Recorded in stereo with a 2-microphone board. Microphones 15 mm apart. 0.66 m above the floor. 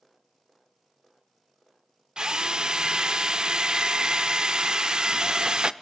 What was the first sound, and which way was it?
A drill, 45° right (ahead or behind).